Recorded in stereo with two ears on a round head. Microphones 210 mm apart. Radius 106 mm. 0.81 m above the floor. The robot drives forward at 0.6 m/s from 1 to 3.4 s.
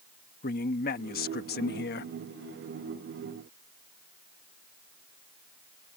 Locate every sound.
0.4 s a man speaking: 40° left (ahead or behind); by 2.1 s 45° left (ahead or behind)